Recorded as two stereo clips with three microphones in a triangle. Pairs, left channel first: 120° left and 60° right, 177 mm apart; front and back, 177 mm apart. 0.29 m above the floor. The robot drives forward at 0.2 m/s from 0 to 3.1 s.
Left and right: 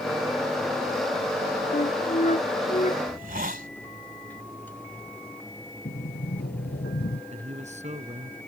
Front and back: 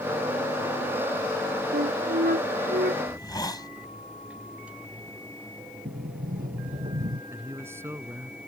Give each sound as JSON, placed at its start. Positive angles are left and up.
{"t": 1.7, "sound": "a flute", "azimuth_deg": 160}
{"t": 3.1, "sound": "a hiss", "azimuth_deg": -65}
{"t": 5.8, "sound": "a sliding door", "azimuth_deg": 145}
{"t": 7.3, "sound": "a man speaking", "azimuth_deg": -105}